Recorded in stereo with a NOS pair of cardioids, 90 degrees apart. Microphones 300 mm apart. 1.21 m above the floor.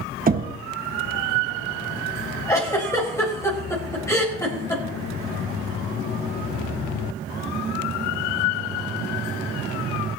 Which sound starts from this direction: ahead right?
Knocking, at 0.3 s.